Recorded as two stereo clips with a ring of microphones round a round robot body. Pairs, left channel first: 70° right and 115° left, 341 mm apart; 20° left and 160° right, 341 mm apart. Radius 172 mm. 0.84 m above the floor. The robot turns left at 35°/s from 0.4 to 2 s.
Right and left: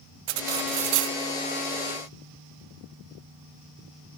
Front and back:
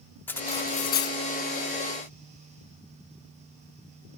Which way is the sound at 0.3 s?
105° left.